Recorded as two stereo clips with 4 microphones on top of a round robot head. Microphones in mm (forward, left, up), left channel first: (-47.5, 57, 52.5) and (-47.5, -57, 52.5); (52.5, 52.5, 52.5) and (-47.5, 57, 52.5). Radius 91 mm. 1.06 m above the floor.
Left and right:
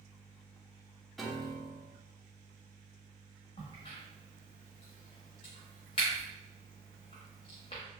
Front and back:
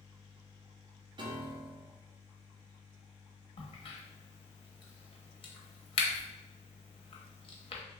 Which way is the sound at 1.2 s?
Straight behind.